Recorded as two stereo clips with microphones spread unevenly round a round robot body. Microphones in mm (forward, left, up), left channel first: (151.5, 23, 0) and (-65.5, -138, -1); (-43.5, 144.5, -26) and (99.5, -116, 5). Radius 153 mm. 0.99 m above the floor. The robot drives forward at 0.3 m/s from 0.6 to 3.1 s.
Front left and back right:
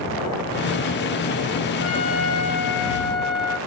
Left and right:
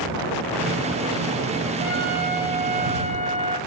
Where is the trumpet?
Straight ahead, 3 m.